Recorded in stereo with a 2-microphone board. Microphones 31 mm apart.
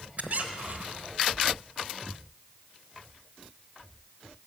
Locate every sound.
0.2 s a squeak: 50° right (ahead or behind), 1.1 m